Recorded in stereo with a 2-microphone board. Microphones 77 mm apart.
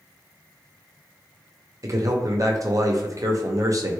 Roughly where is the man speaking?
Right.